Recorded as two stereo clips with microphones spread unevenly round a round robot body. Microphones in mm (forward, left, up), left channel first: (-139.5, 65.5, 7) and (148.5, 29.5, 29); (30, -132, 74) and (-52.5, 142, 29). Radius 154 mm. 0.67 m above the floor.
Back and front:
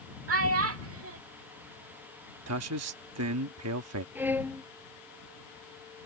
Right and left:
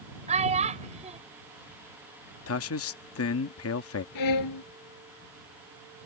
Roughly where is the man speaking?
Ahead right.